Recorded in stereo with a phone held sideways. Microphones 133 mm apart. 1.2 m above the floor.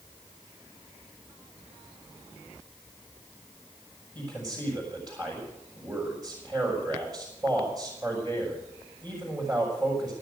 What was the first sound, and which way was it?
A man speaking, 35° right (ahead or behind).